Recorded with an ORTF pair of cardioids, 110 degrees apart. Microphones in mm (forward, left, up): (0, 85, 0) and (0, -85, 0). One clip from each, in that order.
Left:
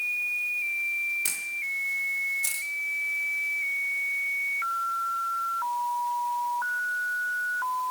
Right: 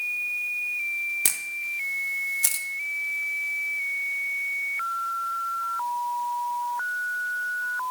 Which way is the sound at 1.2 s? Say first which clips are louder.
Right 1 dB; 40° right.